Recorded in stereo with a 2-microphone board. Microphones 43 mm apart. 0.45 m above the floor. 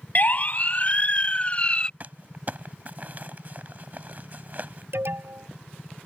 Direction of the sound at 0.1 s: 40° left (ahead or behind).